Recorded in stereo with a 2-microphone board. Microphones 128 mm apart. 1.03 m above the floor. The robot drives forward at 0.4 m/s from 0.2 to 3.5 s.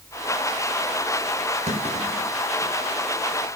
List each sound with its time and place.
1.7 s a clunk: 60° right (ahead or behind), 3.5 m; by 2.7 s 55° right (ahead or behind), 3.5 m